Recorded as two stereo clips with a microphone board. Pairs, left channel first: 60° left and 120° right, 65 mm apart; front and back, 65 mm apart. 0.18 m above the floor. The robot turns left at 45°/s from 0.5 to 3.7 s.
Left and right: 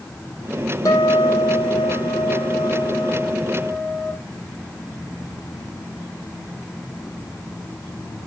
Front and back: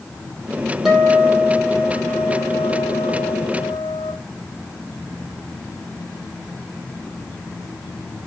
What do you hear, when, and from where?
0.8 s a guitar: 95° left, 3 m; by 4.1 s 35° right, 3 m